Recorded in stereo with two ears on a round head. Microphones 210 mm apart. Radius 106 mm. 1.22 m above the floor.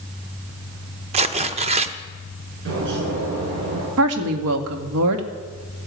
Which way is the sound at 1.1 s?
25° right (ahead or behind).